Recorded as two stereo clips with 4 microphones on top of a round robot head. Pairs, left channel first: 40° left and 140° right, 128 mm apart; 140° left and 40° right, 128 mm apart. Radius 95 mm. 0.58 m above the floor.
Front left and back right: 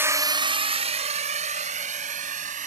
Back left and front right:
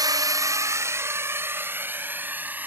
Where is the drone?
80° right; by 2.7 s 115° right.